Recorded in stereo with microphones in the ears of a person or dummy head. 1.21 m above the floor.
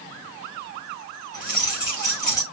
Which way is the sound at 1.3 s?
20° left (ahead or behind).